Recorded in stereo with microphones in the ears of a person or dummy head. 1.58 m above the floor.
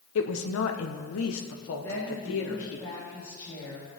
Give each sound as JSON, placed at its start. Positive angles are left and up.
{"t": 0.1, "sound": "a woman speaking", "side_deg": 70, "distance_m": 1.2}
{"t": 1.8, "sound": "a woman speaking", "side_deg": 15, "distance_m": 4.0}